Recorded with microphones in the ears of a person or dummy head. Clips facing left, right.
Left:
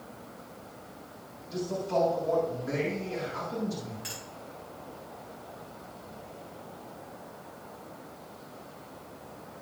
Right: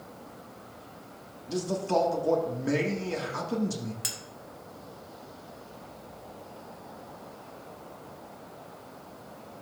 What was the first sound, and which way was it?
A man speaking, 65° right (ahead or behind).